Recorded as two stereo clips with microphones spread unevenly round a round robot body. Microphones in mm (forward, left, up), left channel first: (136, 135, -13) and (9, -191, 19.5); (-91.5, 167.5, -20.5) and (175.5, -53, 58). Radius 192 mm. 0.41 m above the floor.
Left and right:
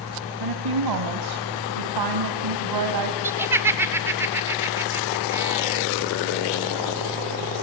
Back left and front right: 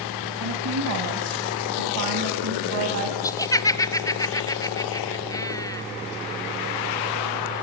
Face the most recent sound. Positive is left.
turn(degrees=160)